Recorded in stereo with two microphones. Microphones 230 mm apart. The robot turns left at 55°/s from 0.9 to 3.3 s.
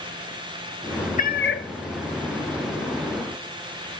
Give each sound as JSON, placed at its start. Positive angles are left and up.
{"t": 1.2, "sound": "a cat meowing", "side_deg": 35, "distance_m": 0.6}